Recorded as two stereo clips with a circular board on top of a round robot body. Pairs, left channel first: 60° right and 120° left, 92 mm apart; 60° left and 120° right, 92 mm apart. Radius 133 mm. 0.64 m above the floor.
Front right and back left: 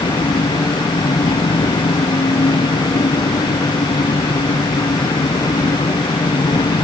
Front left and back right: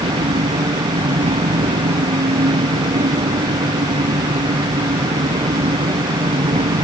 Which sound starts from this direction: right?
An engine running, at 0.0 s.